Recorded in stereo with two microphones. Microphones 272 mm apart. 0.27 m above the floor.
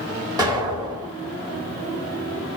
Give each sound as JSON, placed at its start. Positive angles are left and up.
{"t": 0.4, "sound": "an explosion", "side_deg": -15, "distance_m": 1.3}